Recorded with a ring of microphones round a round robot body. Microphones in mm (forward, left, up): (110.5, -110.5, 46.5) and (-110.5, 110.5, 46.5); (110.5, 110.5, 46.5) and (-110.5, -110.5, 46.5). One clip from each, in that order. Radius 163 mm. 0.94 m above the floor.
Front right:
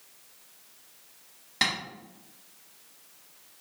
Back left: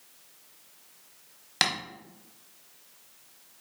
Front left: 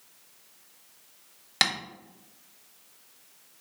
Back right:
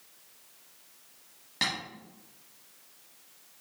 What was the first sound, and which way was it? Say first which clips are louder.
Tapping: back left 1 dB, front left 6 dB; 80° left.